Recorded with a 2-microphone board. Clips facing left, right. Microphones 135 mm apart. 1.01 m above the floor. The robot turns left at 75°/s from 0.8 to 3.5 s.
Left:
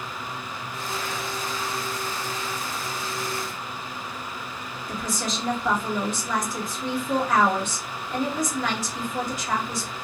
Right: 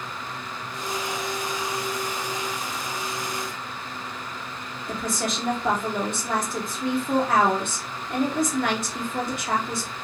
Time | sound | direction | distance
4.9 | a woman speaking | 60° right (ahead or behind) | 1.5 m